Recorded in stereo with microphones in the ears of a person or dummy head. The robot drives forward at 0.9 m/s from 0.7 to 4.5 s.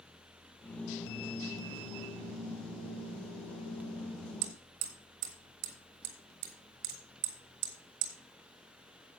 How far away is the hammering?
About 1.3 m.